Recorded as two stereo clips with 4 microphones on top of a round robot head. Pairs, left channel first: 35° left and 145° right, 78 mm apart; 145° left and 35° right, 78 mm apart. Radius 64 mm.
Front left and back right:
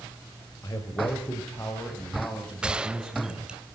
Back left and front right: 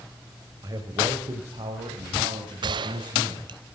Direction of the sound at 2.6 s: 65° right.